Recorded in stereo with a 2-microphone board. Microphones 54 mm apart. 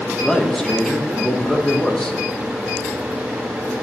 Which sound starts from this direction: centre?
A man speaking, at 0.2 s.